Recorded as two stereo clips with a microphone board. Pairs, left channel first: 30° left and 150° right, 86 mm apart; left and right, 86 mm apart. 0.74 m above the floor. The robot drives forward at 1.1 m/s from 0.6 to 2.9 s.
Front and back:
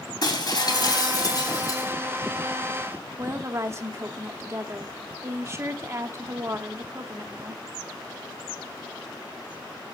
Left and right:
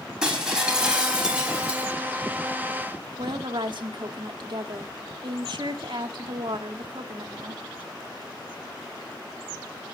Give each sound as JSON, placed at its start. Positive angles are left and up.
{"t": 0.2, "sound": "breaking glass", "azimuth_deg": -10, "distance_m": 3.5}
{"t": 3.2, "sound": "a woman speaking", "azimuth_deg": -95, "distance_m": 1.4}